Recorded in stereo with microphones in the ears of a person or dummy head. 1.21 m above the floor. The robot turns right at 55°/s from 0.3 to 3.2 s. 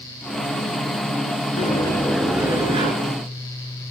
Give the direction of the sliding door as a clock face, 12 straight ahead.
7 o'clock.